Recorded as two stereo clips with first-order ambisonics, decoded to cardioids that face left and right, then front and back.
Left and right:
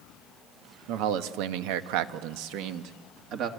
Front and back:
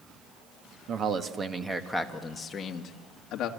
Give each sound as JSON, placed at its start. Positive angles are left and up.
{"t": 0.9, "sound": "a man speaking", "azimuth_deg": -120, "distance_m": 1.5}